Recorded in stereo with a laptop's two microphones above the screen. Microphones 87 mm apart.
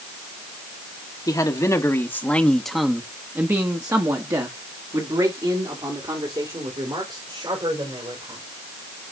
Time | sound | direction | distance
1.3 | a man speaking | 45° left (ahead or behind) | 1.4 m